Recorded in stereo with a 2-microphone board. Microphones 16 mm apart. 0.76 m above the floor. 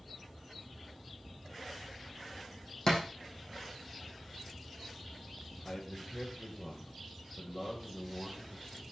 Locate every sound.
2.9 s a thud: 60° left (ahead or behind), 4 m
5.7 s a man speaking: 60° left (ahead or behind), 3.5 m